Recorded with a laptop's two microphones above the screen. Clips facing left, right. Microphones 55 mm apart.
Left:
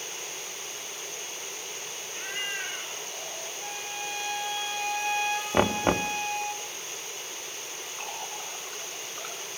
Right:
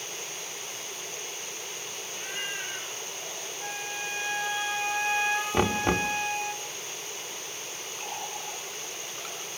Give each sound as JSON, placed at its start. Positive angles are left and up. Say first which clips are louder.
{"t": 2.1, "sound": "a cat meowing", "louder": "left 2 dB", "side_deg": 40, "distance_m": 10.0}
{"t": 3.6, "sound": "a flute", "louder": "right 2 dB", "side_deg": -20, "distance_m": 0.8}
{"t": 5.5, "sound": "knocking", "louder": "left 4 dB", "side_deg": 25, "distance_m": 1.1}
{"t": 8.0, "sound": "a running tap", "louder": "right 1 dB", "side_deg": 55, "distance_m": 9.0}